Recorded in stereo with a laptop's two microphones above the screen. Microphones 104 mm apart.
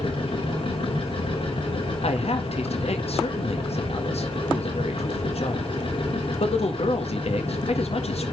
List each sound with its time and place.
0.0 s a machine running: 55° left (ahead or behind), 2.5 m
2.0 s a man speaking: 75° left (ahead or behind), 1.6 m